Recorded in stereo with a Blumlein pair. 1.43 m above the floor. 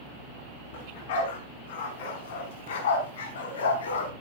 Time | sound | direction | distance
0.7 | a dog barking | 55° left | 5.5 m